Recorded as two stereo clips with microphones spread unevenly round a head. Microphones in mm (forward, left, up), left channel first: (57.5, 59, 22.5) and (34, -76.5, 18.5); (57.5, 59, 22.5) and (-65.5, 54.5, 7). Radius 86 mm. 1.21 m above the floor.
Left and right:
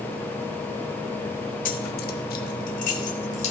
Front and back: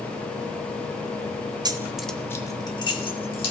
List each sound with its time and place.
1.6 s keys jangling: 125° left, 0.8 m; by 3.5 s 45° left, 2.5 m